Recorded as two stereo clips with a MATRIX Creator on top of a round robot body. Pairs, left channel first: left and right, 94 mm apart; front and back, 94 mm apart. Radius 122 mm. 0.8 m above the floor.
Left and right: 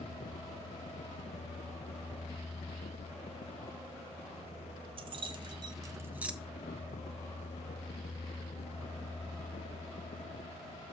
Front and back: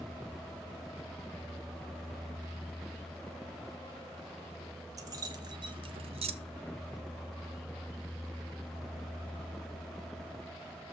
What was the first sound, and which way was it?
Keys jangling, 125° right.